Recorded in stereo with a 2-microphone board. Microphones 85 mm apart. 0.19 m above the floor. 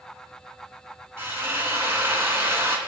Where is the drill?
30° right (ahead or behind), 2.5 m.